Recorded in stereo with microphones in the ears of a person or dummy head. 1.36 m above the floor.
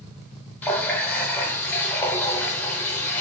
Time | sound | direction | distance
0.6 | a running tap | 10° left (ahead or behind) | 0.6 m